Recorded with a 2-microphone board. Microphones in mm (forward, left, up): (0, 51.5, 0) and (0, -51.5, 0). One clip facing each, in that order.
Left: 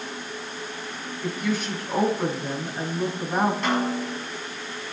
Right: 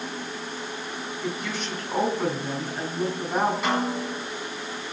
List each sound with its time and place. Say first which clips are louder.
1.2 s a woman speaking: left 6 dB; centre (ahead or behind), 7.5 m
3.6 s a snare drum: left 1 dB; 5° right (ahead or behind), 8 m